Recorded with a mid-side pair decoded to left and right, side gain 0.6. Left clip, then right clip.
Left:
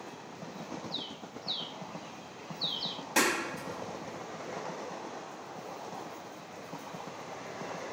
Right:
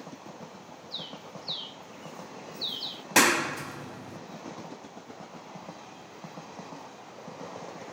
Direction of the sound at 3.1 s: 45° right.